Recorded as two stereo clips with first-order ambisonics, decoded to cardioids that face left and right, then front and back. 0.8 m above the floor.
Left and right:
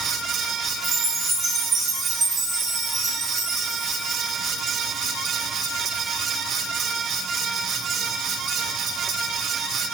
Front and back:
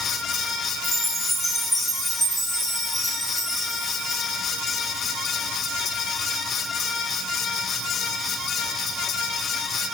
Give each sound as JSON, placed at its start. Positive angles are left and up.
{"t": 0.8, "sound": "a chime", "azimuth_deg": -90, "distance_m": 0.7}